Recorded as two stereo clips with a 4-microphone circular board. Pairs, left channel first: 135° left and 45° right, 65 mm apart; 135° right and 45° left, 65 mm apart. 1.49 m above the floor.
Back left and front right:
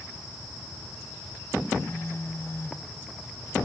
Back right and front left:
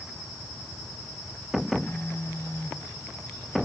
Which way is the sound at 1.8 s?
Straight behind.